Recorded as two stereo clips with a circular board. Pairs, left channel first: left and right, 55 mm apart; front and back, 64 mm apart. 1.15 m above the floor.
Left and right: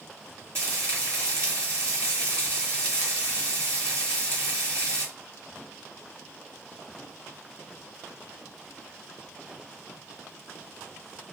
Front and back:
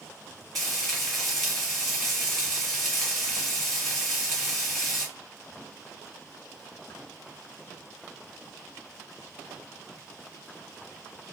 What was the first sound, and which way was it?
Frying, 85° right.